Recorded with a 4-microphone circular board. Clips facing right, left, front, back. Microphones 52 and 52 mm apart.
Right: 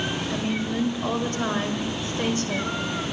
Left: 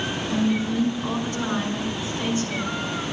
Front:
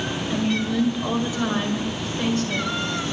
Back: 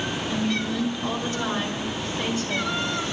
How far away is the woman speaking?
About 2.5 m.